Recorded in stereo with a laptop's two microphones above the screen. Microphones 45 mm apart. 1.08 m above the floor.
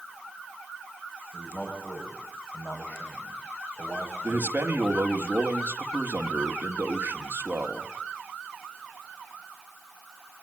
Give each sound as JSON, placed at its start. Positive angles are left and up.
{"t": 1.3, "sound": "a man speaking", "side_deg": 50, "distance_m": 6.5}
{"t": 4.2, "sound": "a man speaking", "side_deg": -45, "distance_m": 2.0}